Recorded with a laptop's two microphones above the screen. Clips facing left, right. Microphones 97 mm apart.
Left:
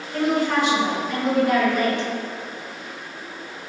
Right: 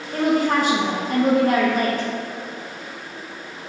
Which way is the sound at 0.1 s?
40° right (ahead or behind).